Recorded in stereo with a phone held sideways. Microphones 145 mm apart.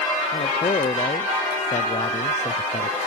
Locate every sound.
0.3 s a man speaking: 50° left (ahead or behind)